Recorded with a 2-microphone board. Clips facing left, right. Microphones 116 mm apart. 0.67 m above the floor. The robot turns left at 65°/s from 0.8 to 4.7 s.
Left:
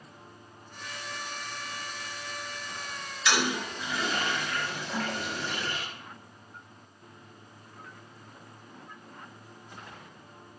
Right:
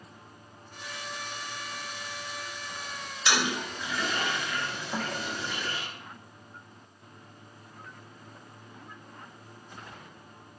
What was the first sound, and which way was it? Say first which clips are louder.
A toilet flushing: left 1 dB; 30° right (ahead or behind).